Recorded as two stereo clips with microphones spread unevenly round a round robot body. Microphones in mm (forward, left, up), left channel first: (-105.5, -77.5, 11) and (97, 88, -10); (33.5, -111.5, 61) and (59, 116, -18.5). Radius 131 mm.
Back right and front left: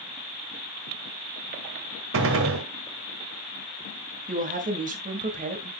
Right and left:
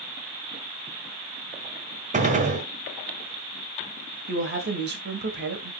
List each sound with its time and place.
2.1 s a gunshot: 55° left, 1.6 m
4.3 s a woman speaking: 95° left, 2 m